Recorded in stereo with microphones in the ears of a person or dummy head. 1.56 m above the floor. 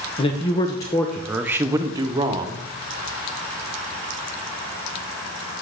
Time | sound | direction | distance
0.2 | a man speaking | 25° left (ahead or behind) | 0.6 m